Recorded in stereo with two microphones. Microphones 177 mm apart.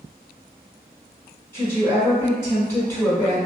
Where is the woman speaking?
15° left (ahead or behind), 1.5 m.